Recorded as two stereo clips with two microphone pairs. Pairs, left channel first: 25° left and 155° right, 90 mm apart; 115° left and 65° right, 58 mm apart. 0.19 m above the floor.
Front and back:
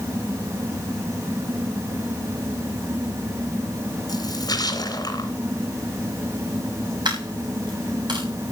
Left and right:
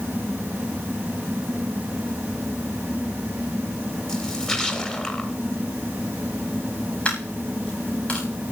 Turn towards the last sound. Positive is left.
turn(degrees=175)